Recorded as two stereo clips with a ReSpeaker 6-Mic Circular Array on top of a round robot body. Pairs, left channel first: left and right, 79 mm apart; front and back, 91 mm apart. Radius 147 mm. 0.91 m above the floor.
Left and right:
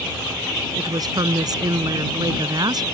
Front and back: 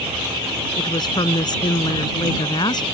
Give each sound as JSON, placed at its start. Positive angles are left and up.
{"t": 0.8, "sound": "a woman speaking", "azimuth_deg": -50}